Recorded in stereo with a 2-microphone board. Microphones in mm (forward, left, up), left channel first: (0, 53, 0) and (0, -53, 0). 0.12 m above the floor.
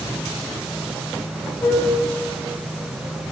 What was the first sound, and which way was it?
A flute, 15° left (ahead or behind).